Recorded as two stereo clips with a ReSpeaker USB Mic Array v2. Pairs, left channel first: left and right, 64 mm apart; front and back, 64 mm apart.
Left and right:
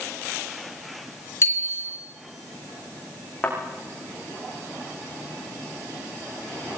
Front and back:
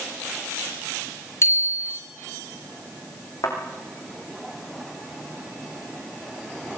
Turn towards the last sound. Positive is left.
turn(degrees=20)